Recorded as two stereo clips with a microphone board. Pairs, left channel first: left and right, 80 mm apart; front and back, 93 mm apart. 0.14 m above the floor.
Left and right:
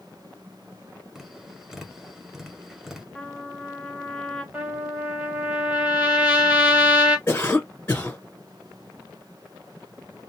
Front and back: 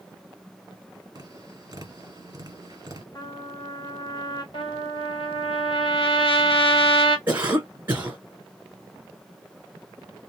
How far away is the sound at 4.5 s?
About 1.2 m.